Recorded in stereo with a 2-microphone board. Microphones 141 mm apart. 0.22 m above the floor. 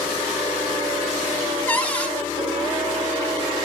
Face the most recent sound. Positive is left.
turn(degrees=10)  # may be behind; listen again after turning